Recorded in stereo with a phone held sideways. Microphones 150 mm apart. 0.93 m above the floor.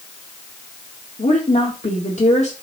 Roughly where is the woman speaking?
Left.